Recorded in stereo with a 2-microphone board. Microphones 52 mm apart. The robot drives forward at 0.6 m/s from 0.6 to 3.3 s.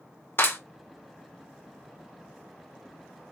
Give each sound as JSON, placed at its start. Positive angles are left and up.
{"t": 0.4, "sound": "a clap", "side_deg": 40, "distance_m": 2.0}